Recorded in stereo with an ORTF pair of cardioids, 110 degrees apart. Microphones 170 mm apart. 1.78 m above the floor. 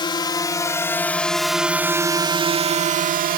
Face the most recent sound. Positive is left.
turn(degrees=-60)